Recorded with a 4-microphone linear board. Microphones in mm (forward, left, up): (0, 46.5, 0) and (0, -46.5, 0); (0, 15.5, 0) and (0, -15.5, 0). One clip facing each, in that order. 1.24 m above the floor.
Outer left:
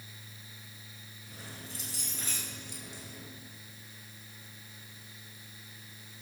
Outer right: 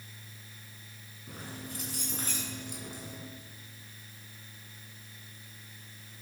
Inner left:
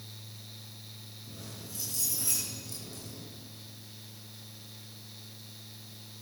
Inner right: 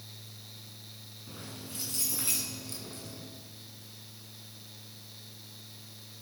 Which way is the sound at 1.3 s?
50° right (ahead or behind).